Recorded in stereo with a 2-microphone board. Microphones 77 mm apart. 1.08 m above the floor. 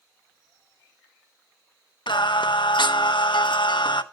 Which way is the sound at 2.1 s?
85° left.